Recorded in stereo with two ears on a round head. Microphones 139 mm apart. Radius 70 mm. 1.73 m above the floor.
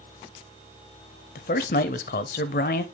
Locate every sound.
1.4 s a man speaking: 55° left (ahead or behind), 0.7 m